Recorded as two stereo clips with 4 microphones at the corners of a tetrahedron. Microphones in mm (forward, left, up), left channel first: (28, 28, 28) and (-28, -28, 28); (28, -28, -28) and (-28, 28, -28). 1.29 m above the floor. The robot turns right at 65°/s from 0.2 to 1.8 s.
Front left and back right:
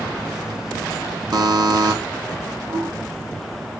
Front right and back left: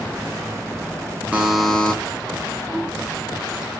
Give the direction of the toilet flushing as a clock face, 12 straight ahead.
4 o'clock.